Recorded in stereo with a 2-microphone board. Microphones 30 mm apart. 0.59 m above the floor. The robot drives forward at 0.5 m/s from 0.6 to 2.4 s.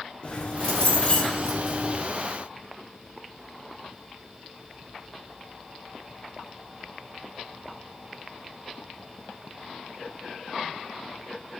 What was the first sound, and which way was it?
Keys jangling, 40° left (ahead or behind).